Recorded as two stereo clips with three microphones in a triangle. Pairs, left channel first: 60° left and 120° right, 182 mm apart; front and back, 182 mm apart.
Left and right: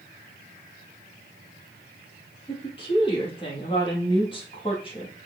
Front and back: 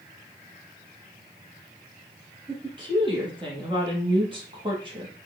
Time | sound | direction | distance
2.5 | a woman speaking | 120° left | 3.5 m